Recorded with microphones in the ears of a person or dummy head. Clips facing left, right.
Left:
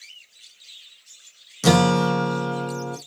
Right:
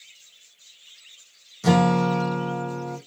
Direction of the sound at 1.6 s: 70° left (ahead or behind).